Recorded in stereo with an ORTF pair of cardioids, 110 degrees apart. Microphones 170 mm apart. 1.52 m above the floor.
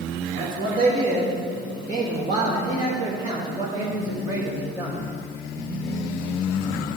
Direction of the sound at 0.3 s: 70° right.